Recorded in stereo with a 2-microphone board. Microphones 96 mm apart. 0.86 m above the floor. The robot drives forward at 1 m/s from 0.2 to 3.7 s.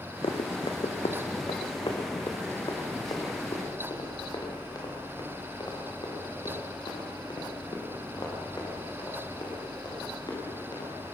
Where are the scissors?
I don't hear scissors.